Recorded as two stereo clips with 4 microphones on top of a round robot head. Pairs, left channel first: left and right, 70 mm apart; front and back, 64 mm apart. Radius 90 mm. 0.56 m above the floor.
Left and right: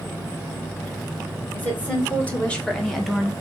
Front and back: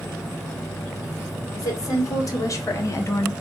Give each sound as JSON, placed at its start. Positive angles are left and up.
{"t": 1.5, "sound": "a woman speaking", "azimuth_deg": 25, "distance_m": 2.0}